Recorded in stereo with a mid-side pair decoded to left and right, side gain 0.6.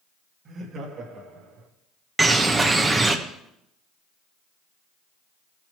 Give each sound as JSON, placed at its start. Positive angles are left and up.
{"t": 0.5, "sound": "laughter", "azimuth_deg": -45, "distance_m": 2.5}
{"t": 2.2, "sound": "a bird", "azimuth_deg": -15, "distance_m": 1.0}